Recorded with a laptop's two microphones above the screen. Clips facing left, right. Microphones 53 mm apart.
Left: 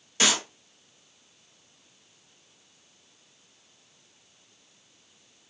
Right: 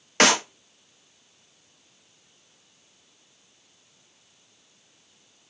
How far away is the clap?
About 0.9 m.